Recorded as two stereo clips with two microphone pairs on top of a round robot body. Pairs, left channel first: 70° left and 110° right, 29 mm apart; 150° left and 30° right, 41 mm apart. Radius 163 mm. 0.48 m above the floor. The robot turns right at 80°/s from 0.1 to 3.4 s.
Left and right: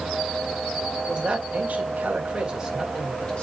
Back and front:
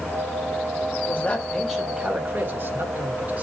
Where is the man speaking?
160° right, 3 m; by 3.4 s 25° left, 3 m.